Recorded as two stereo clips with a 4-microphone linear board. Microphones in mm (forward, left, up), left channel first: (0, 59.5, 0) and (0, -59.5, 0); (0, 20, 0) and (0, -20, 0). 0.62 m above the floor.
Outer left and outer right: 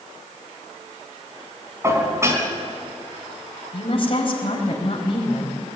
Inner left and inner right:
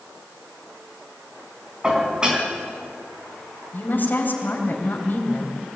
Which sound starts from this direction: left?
A woman speaking, at 3.7 s.